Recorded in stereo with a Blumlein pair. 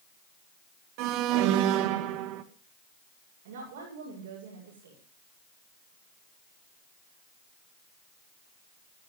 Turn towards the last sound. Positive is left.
turn(degrees=-60)